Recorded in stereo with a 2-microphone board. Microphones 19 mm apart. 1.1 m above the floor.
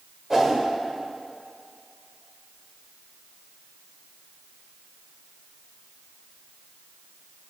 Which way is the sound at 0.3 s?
25° right (ahead or behind).